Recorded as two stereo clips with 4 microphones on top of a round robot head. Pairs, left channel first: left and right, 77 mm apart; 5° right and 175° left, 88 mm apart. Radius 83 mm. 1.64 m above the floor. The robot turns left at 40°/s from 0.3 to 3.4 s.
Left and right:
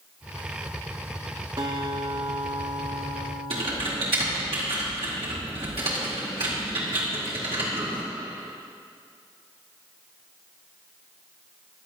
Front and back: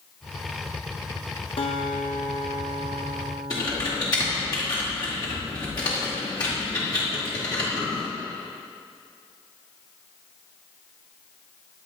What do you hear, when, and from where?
1.6 s a guitar: 35° right, 0.8 m; by 4.5 s 110° right, 0.8 m
3.5 s typing on a keyboard: 65° right, 2.0 m